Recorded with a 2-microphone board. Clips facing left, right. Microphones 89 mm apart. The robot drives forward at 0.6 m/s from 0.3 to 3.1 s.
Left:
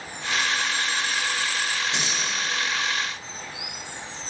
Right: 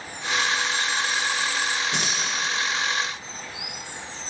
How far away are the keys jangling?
About 1.6 m.